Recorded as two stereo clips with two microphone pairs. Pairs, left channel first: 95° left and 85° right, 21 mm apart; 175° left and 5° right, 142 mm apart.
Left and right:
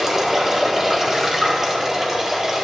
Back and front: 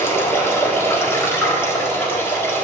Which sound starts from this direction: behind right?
Running water, at 0.0 s.